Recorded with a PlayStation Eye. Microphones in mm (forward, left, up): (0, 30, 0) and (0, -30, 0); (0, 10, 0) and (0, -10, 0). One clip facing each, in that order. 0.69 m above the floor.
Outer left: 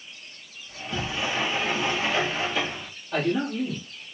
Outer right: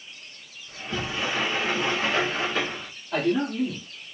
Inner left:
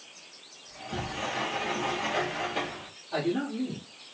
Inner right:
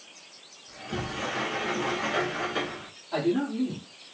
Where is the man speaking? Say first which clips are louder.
Outer right 1 dB, inner right 3 dB; 15° right (ahead or behind), 2.5 m.